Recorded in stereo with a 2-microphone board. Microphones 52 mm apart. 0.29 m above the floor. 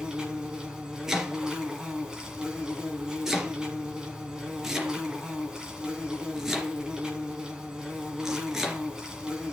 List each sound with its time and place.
0.0 s an insect: 15° right (ahead or behind), 3 m
1.1 s chopping: 10° right (ahead or behind), 3 m